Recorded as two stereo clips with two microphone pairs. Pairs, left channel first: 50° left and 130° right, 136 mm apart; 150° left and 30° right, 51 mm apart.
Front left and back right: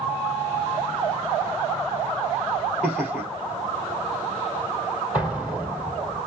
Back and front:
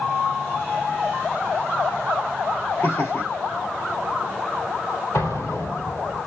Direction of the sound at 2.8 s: 145° left.